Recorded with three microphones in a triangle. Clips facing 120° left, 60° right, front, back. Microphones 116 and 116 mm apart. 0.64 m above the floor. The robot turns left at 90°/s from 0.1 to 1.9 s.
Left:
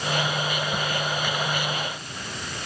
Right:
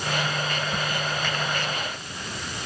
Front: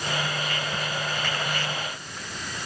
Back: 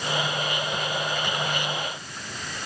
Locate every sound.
Only background noise.